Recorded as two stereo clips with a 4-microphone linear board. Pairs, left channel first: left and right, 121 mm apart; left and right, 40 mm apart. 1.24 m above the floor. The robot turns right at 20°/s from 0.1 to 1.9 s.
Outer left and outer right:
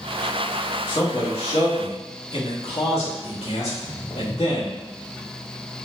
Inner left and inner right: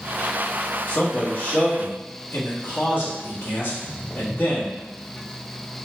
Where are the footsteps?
20° left (ahead or behind), 1.2 m.